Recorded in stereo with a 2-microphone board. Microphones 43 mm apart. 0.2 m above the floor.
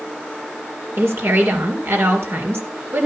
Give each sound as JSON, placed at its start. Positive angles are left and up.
{"t": 1.0, "sound": "a woman speaking", "side_deg": -60, "distance_m": 3.0}